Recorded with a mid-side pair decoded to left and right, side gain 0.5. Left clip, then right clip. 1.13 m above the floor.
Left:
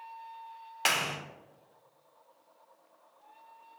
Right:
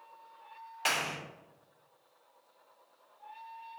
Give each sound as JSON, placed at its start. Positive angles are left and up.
{"t": 0.8, "sound": "a clap", "azimuth_deg": 50, "distance_m": 0.8}